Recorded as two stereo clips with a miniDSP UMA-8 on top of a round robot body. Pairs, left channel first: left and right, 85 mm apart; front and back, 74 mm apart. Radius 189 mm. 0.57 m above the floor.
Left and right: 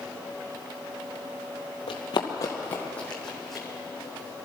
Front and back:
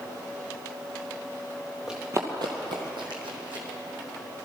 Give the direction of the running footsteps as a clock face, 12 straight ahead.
9 o'clock.